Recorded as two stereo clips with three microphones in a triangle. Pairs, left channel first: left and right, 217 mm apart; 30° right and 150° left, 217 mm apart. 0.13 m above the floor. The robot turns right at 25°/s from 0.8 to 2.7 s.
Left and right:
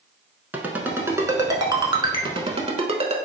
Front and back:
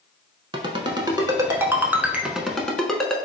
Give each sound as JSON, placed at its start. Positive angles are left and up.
{"t": 0.5, "sound": "a ringtone", "azimuth_deg": -165, "distance_m": 0.5}